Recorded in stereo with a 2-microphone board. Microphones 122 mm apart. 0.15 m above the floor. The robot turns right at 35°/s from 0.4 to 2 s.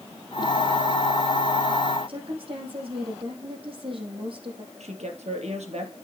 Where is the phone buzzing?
I don't hear a phone buzzing.